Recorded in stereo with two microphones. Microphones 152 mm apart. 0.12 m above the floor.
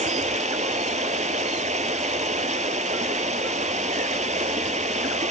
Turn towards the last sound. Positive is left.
turn(degrees=-50)  # may be behind; listen again after turning